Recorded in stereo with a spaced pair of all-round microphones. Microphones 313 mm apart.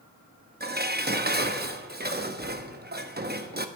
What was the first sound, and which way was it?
Dishes clattering, 30° right (ahead or behind).